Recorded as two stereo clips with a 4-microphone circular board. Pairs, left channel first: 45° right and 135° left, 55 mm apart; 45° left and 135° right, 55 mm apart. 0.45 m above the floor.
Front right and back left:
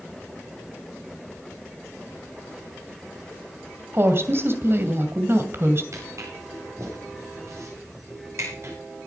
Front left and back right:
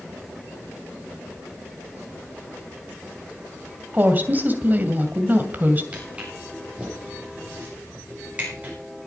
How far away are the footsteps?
About 8.5 m.